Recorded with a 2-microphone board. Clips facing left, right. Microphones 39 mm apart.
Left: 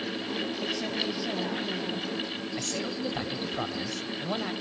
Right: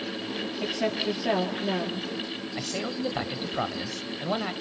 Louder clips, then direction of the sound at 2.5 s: Right 3 dB; 20° right (ahead or behind).